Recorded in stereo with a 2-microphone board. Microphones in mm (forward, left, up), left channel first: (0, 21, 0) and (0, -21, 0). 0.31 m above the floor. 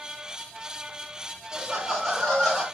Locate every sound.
1.5 s laughter: 10° right (ahead or behind), 1.7 m; by 2.6 s 30° left (ahead or behind), 1.8 m